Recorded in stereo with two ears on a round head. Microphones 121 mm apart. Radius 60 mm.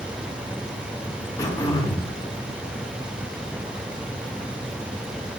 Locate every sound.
1.4 s throat clearing: 25° left (ahead or behind), 1.5 m